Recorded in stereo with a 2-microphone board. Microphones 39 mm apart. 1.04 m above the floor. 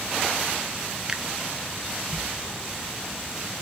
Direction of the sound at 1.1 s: 20° right (ahead or behind).